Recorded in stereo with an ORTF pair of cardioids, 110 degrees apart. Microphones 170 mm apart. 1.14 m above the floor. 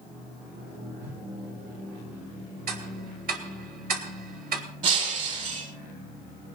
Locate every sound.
1.0 s a whoosh: 65° right, 4 m
2.7 s ticking: 65° right, 2.5 m
4.8 s breaking glass: 50° right, 6.5 m